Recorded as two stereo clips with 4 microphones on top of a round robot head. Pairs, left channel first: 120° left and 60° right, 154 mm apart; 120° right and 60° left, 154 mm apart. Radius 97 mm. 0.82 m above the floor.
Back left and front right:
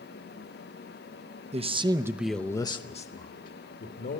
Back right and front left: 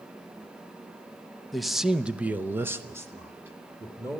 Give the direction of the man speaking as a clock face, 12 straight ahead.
1 o'clock.